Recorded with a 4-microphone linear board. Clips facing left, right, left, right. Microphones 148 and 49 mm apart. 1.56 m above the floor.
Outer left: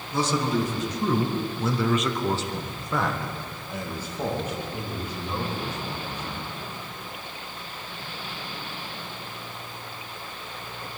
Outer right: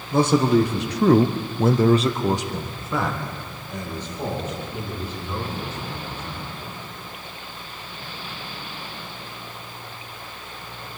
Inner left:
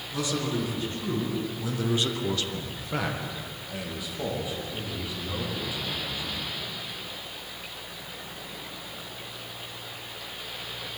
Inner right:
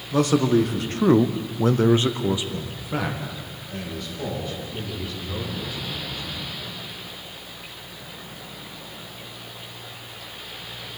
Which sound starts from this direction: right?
A man speaking, at 0.1 s.